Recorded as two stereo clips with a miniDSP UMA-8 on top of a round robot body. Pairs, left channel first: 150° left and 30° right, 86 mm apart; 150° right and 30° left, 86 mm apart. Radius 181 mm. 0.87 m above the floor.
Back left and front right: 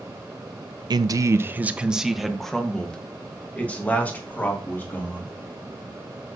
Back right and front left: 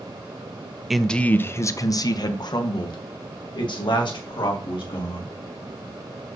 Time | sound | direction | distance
0.9 | a man speaking | 60° right | 0.6 m